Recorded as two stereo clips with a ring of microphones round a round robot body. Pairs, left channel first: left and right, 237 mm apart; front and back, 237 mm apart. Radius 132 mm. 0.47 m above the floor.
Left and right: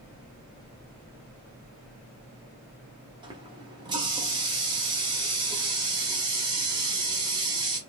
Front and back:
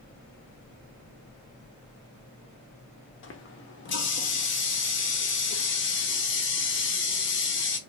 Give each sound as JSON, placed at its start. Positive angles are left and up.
{"t": 3.2, "sound": "a running tap", "azimuth_deg": -20, "distance_m": 0.8}